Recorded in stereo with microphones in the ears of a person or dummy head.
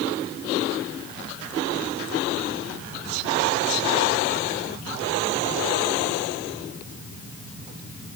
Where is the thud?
No thud in this recording.